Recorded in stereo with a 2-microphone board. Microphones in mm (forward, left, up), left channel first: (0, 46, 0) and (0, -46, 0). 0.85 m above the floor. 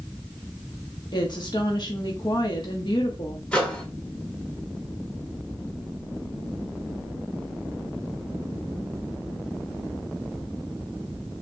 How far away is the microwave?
About 2 m.